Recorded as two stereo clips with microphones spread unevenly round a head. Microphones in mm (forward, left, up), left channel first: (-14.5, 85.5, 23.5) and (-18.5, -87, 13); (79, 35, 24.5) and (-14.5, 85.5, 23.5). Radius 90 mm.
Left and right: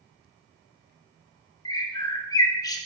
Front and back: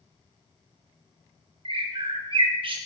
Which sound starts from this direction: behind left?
A bird, at 1.6 s.